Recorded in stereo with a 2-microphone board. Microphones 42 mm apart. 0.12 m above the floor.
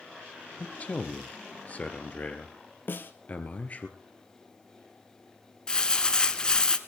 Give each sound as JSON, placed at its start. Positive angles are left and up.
{"t": 0.6, "sound": "a man speaking", "side_deg": 35, "distance_m": 1.9}
{"t": 2.9, "sound": "a snare drum", "side_deg": 50, "distance_m": 1.8}
{"t": 5.7, "sound": "crumpling", "side_deg": 20, "distance_m": 1.2}